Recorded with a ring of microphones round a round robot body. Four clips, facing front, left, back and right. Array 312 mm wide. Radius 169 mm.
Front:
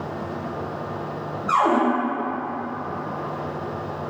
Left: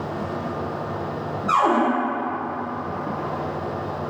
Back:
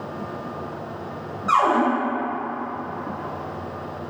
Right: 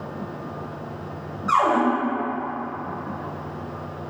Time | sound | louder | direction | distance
1.5 | a cupboard door | even, back 1 dB | 140° right | 2.0 m